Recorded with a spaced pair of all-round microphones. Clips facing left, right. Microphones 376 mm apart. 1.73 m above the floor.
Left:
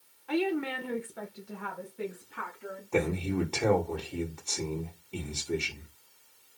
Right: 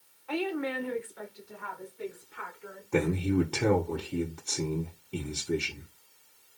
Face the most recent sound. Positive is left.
turn(degrees=-25)  # may be behind; listen again after turning